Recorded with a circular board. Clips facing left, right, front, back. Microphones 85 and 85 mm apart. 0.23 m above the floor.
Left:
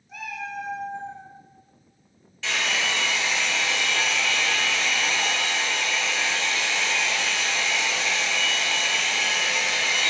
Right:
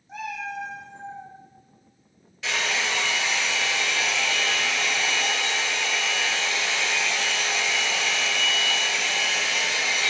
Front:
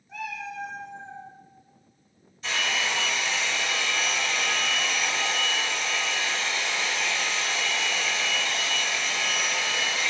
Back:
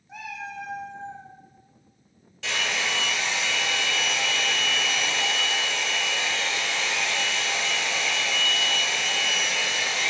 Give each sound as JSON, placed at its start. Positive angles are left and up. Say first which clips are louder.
{"t": 0.1, "sound": "a cat meowing", "louder": "right 2 dB, front 1 dB", "azimuth_deg": -120, "distance_m": 0.7}
{"t": 2.4, "sound": "a hair dryer", "louder": "even, even", "azimuth_deg": -170, "distance_m": 0.9}